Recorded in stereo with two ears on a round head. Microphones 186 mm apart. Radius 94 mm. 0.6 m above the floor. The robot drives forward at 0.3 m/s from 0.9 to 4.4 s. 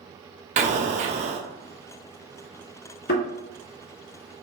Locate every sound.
0.6 s an explosion: 35° right (ahead or behind), 0.7 m
3.1 s a thud: 55° left (ahead or behind), 1.7 m; by 3.3 s 50° left (ahead or behind), 1.7 m